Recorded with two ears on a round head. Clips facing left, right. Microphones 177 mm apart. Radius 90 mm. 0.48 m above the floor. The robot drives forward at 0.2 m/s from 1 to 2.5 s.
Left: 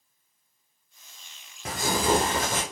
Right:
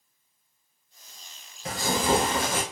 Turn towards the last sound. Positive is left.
turn(degrees=40)  # may be behind; listen again after turning